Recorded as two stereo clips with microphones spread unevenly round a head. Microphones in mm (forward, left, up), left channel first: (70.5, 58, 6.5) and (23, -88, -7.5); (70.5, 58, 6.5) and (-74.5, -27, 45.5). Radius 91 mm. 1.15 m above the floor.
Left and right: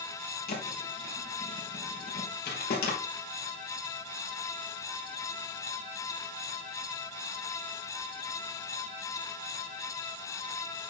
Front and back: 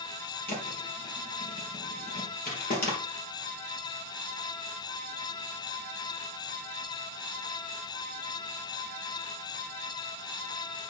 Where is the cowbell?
I don't hear a cowbell.